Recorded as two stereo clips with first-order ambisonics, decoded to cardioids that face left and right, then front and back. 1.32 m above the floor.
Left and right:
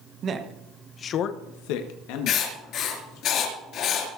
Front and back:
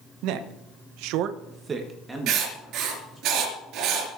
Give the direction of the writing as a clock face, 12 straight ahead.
7 o'clock.